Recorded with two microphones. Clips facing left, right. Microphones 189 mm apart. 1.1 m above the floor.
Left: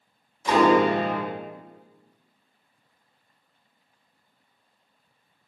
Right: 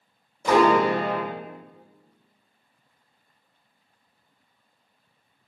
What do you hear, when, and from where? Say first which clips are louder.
0.4 s a piano: even; 55° right (ahead or behind), 1.9 m